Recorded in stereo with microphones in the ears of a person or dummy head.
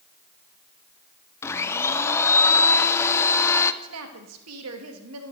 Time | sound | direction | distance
1.4 | a blender | 15° left (ahead or behind) | 0.5 m
3.8 | a woman speaking | 75° right (ahead or behind) | 1.8 m